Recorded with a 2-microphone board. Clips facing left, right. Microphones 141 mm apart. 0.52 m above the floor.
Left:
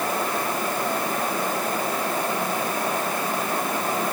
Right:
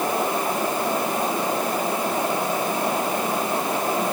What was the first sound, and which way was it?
Only background noise.